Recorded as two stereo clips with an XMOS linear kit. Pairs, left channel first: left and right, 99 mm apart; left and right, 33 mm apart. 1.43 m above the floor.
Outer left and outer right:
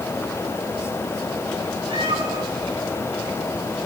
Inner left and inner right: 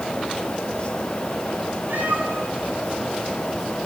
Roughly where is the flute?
I don't hear a flute.